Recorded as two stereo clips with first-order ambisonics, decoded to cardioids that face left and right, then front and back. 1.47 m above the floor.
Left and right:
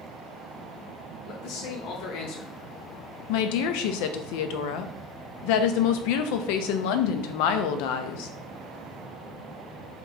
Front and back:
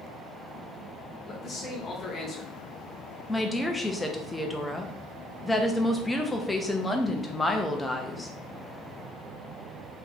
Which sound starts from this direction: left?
A woman speaking, at 3.3 s.